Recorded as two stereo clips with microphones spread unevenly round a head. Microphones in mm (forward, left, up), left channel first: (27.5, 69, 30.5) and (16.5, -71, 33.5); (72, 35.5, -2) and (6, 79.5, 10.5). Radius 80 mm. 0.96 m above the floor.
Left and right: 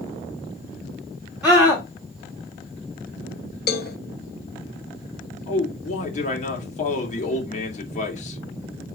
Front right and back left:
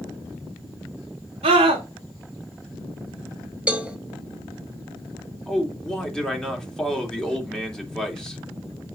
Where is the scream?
Straight behind, 2 m.